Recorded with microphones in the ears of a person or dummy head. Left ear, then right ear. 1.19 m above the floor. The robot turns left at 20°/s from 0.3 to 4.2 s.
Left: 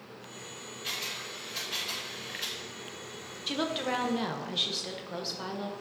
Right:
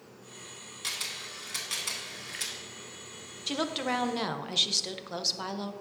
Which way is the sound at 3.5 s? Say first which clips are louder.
Even; 15° right (ahead or behind).